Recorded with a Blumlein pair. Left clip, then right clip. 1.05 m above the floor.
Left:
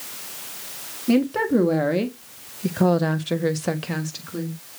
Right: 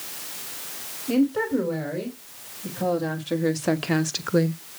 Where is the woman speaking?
55° left, 1.6 m; by 4.6 s 40° right, 0.8 m.